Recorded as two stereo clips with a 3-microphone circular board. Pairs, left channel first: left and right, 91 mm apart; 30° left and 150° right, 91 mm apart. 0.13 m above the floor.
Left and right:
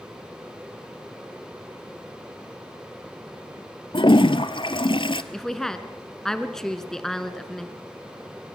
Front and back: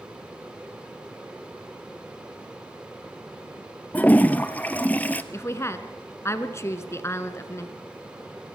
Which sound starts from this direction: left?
A toilet flushing, at 3.9 s.